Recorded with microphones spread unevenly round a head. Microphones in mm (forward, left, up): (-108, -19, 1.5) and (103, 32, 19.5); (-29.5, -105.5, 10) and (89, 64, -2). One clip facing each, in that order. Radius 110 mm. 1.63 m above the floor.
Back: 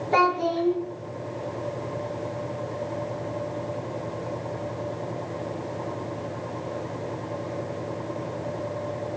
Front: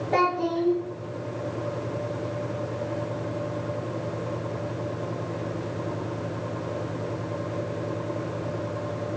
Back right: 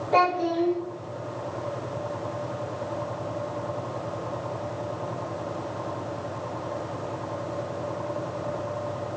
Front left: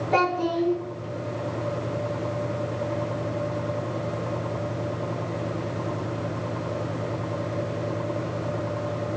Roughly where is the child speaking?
Left.